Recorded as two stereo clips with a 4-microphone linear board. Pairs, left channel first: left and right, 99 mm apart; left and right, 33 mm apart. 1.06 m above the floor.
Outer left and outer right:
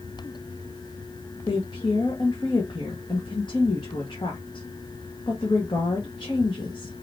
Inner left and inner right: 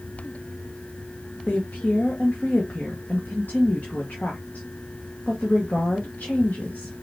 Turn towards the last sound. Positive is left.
turn(degrees=55)  # may be behind; listen again after turning